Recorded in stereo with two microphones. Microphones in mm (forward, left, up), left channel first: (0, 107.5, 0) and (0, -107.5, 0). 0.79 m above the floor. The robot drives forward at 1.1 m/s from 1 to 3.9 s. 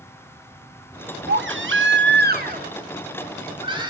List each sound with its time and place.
1.3 s a baby crying: 60° right (ahead or behind), 1.1 m; by 3.9 s 20° right (ahead or behind), 2.5 m